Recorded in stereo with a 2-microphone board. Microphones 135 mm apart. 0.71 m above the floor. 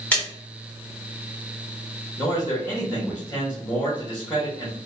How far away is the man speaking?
About 1.2 m.